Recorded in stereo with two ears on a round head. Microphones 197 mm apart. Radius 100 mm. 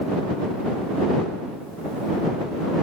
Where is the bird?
I don't hear a bird.